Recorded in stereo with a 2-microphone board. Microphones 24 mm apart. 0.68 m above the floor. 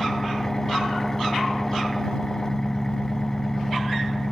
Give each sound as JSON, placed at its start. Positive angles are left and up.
{"t": 0.0, "sound": "an engine running", "side_deg": 20}